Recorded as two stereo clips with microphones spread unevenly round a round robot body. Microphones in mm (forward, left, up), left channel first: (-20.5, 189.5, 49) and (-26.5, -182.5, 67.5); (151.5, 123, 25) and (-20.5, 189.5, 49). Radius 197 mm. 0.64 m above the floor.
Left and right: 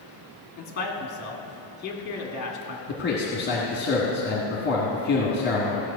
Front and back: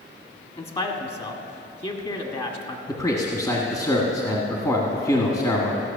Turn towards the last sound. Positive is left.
turn(degrees=40)